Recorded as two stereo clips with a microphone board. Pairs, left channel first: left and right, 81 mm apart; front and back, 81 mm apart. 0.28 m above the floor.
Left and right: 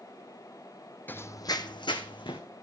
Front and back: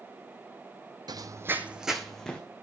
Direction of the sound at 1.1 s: 155° left.